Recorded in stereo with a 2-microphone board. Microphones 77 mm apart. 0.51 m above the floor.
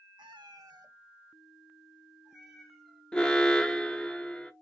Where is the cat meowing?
80° right, 0.8 m; by 3.0 s centre (ahead or behind), 1.6 m.